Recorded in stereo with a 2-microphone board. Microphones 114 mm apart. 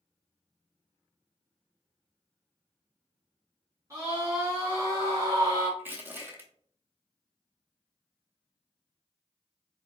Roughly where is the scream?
Right.